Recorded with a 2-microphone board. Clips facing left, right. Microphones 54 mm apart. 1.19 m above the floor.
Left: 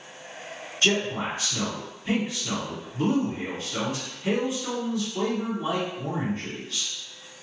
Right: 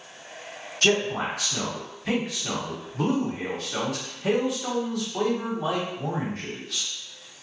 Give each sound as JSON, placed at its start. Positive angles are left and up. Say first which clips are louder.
{"t": 0.8, "sound": "a man speaking", "louder": "right 2 dB", "side_deg": -75, "distance_m": 1.1}